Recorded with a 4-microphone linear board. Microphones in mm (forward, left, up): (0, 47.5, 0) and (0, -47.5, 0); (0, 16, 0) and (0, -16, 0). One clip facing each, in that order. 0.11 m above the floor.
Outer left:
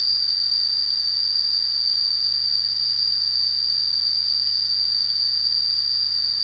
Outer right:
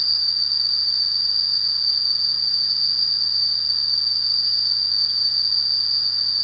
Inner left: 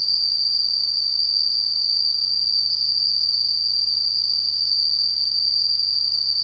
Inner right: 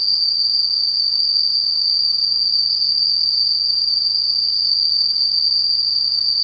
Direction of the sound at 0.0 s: 50° right (ahead or behind).